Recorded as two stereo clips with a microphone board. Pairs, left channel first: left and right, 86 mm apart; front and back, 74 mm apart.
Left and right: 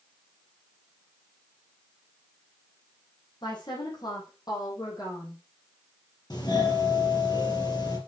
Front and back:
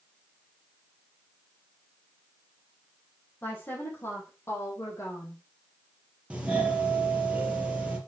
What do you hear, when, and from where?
3.4 s a woman speaking: 60° left, 6 m; by 5.4 s 45° left, 5.5 m
6.3 s a doorbell: 110° left, 3.5 m